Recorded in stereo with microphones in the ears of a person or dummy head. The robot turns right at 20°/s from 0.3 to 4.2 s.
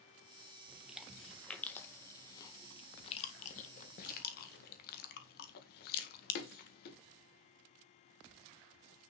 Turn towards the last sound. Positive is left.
turn(degrees=55)  # may be behind; listen again after turning